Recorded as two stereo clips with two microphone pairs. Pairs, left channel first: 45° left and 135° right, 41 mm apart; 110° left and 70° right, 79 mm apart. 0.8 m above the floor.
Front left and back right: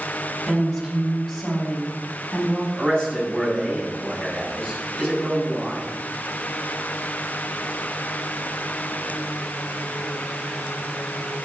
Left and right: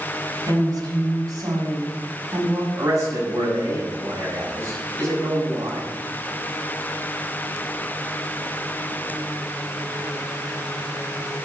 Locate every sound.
0.4 s a woman speaking: 40° right, 5.5 m; by 2.6 s 20° right, 5 m
2.8 s a man speaking: 20° right, 6.5 m